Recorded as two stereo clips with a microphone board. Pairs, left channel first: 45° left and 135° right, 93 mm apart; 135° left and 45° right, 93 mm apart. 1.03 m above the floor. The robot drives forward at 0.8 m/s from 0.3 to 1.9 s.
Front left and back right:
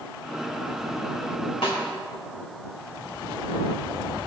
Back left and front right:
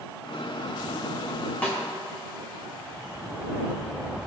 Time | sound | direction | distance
1.6 | a snare drum | 60° left | 1.7 m